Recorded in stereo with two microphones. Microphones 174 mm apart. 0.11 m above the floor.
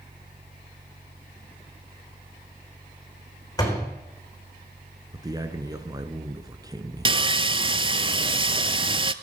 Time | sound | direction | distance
3.6 | a door slam | 20° left (ahead or behind) | 5.5 m
5.1 | a man speaking | 20° right (ahead or behind) | 1.2 m
7.0 | sawing | 30° right (ahead or behind) | 0.5 m